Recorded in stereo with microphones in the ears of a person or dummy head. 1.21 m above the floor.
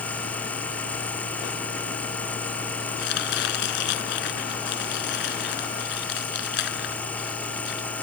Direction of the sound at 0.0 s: 5° left (ahead or behind).